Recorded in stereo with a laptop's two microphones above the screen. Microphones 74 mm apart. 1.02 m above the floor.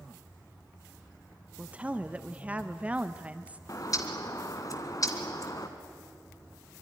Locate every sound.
1.6 s a woman speaking: 20° right (ahead or behind), 0.7 m
3.7 s a bird: 50° left (ahead or behind), 1.7 m